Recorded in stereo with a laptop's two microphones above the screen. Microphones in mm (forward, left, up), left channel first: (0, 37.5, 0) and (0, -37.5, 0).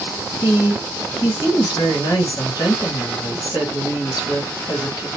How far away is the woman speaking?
About 1.5 m.